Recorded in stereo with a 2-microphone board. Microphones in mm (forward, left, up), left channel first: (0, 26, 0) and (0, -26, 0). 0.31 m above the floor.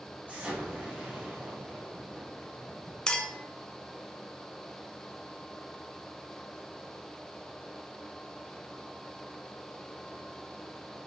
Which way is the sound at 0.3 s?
30° right (ahead or behind).